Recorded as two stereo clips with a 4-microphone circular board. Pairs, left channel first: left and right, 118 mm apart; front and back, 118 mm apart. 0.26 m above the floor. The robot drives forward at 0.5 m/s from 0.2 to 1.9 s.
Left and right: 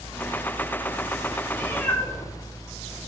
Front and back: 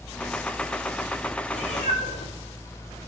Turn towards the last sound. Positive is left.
turn(degrees=15)